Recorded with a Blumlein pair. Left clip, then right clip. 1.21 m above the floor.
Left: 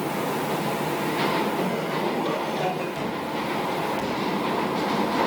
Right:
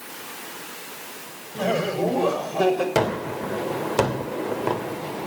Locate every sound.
1.6 s laughter: 60° right, 6.5 m; by 2.9 s 75° right, 6 m
3.0 s a gunshot: 50° right, 2.5 m